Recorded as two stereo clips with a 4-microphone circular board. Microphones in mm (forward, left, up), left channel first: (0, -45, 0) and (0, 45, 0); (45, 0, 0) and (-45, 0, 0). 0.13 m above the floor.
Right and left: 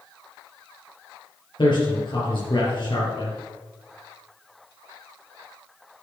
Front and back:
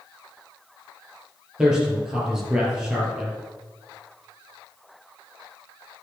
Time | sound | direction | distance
1.6 | a man speaking | 100° right | 3.5 m